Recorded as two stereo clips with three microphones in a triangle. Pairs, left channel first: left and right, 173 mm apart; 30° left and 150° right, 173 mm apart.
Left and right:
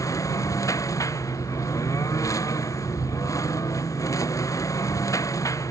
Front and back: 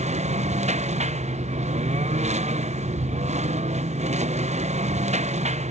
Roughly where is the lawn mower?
Behind.